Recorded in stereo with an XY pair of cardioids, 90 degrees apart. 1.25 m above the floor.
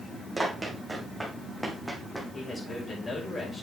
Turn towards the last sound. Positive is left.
turn(degrees=35)